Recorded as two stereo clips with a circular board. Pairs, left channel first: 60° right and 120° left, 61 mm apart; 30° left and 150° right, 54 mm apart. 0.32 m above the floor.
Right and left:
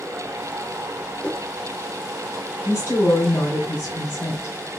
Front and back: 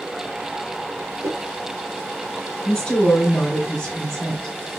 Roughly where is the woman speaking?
Ahead right.